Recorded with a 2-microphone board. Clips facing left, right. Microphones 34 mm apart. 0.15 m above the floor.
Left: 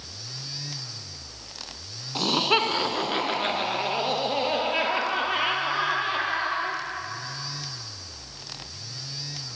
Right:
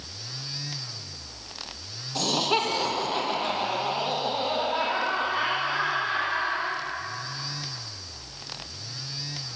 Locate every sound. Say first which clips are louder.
2.1 s laughter: left 2 dB; 25° left (ahead or behind), 1.2 m; by 6.8 s 65° left (ahead or behind), 4 m